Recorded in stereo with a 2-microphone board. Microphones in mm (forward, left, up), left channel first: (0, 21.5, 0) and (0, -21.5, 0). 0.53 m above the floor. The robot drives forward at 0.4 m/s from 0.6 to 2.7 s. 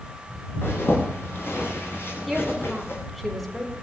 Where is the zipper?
60° left (ahead or behind), 10 m.